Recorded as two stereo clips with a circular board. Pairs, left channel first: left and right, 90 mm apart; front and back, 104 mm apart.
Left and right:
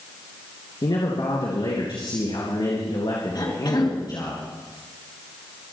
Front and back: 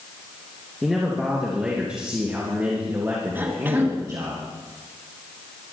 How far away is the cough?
About 3 m.